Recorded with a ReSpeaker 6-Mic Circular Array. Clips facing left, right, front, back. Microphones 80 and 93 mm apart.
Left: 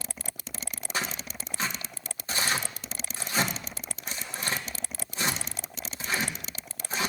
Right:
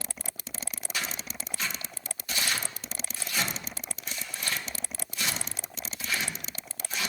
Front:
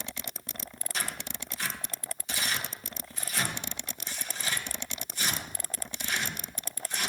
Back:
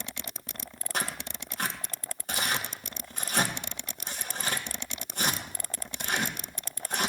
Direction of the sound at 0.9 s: 145° left.